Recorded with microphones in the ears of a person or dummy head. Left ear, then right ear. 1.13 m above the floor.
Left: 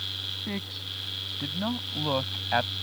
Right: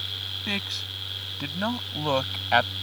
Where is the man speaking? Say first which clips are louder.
Right 5 dB; 70° right (ahead or behind); by 2.7 s 80° right.